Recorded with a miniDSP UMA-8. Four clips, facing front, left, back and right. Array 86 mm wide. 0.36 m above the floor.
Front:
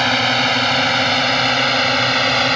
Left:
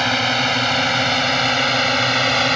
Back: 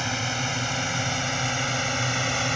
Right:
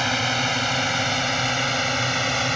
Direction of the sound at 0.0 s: 20° left.